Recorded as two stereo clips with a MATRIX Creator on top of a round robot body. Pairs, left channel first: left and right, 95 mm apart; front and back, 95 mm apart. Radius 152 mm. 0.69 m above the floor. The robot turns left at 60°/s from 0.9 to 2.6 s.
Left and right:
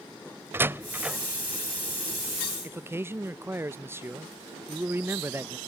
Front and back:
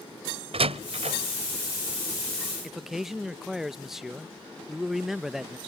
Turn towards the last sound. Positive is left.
turn(degrees=-100)